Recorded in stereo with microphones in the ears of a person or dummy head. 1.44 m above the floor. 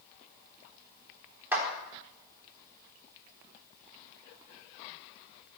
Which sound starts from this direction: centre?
A clap, at 1.5 s.